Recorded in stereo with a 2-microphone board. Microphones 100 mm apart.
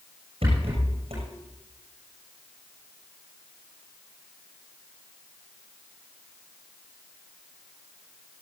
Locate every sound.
0.4 s a rattle: 75° right (ahead or behind), 7 m